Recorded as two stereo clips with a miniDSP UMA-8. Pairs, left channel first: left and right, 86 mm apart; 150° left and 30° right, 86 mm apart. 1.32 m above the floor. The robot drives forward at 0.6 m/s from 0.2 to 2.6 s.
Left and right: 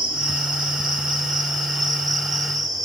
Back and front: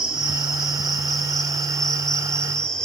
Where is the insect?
115° right, 3.5 m; by 2.9 s 130° right, 4.5 m.